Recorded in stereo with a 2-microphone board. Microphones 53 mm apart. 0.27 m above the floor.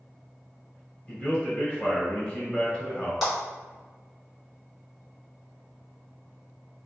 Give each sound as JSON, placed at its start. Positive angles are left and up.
{"t": 1.1, "sound": "a man speaking", "side_deg": 20, "distance_m": 1.0}
{"t": 3.2, "sound": "a clap", "side_deg": 5, "distance_m": 1.8}